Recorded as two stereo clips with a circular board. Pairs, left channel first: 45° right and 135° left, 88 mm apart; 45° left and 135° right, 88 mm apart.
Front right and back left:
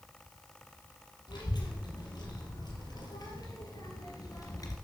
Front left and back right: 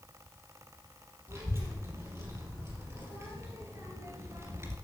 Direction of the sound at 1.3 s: 80° right.